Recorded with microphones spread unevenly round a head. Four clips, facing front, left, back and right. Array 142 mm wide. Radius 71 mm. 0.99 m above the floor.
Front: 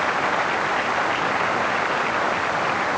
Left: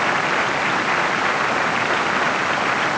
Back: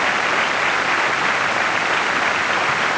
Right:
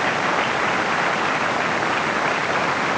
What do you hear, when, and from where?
Only background noise.